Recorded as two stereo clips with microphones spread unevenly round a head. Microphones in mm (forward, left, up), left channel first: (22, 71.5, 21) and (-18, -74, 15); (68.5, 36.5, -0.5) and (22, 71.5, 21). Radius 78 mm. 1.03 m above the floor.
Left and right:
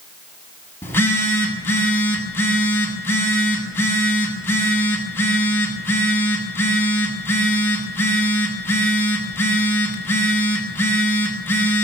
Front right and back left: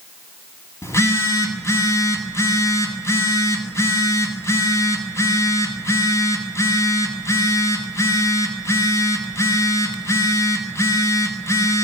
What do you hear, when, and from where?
0.8 s a phone buzzing: straight ahead, 7 m